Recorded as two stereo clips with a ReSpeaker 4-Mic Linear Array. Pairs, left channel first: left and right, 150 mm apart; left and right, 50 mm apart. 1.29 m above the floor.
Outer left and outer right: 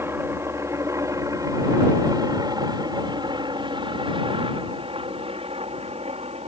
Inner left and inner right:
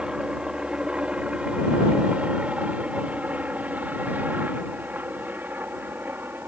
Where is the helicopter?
20° right (ahead or behind); by 6.5 s 50° right (ahead or behind).